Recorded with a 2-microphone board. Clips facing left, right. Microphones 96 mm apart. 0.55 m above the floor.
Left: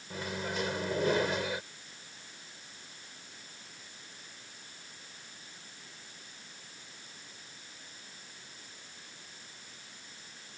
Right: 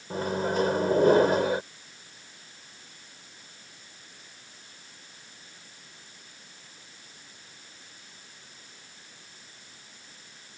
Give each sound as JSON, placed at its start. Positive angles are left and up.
{"t": 0.1, "sound": "a microwave", "side_deg": -45}